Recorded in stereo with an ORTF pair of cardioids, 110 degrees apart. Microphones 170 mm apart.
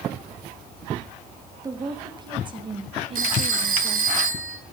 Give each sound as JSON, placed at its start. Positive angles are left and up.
{"t": 1.6, "sound": "a woman speaking", "azimuth_deg": -25, "distance_m": 2.0}
{"t": 3.1, "sound": "a phone ringing", "azimuth_deg": -55, "distance_m": 4.0}